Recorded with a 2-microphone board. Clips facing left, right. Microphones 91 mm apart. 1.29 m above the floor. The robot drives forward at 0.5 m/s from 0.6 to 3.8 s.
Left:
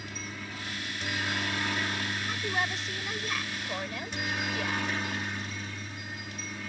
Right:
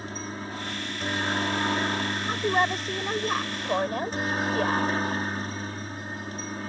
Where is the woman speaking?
40° right (ahead or behind); by 4.9 s 45° right (ahead or behind).